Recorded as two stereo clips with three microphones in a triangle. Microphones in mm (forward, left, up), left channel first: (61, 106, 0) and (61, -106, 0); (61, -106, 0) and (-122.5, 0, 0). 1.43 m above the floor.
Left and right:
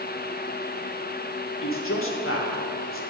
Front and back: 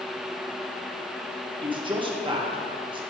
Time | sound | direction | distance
1.6 | a man speaking | 85° left | 1.4 m